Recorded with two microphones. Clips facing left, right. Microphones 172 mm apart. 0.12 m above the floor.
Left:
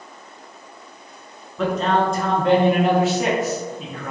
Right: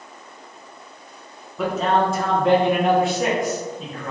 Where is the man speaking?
5° right (ahead or behind), 1.3 m; by 4.1 s 10° left (ahead or behind), 2.5 m.